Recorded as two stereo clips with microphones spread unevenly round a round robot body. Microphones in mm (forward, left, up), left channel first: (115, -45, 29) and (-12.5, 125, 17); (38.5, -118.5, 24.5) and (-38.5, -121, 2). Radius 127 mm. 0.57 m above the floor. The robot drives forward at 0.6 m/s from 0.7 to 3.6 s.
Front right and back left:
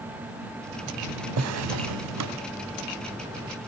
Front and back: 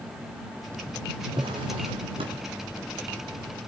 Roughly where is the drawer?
Behind left.